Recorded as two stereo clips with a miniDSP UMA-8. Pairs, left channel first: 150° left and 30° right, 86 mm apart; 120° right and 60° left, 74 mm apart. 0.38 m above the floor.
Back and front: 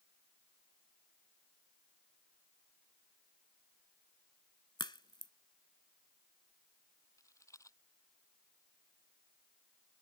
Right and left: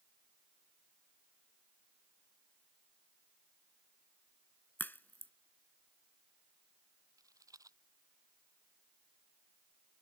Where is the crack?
175° left.